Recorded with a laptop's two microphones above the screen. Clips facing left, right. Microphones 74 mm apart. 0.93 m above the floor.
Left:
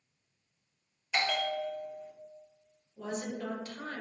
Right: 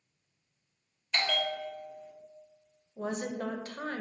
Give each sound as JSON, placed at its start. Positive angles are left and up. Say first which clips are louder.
{"t": 1.1, "sound": "a bell", "louder": "left 1 dB", "side_deg": 10, "distance_m": 0.6}
{"t": 3.0, "sound": "a woman speaking", "louder": "right 3 dB", "side_deg": -40, "distance_m": 0.7}